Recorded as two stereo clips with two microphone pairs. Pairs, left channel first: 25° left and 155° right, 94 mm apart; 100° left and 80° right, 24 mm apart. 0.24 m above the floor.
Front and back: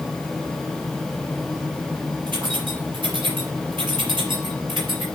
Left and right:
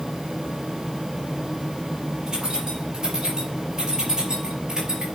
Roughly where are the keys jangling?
Behind right.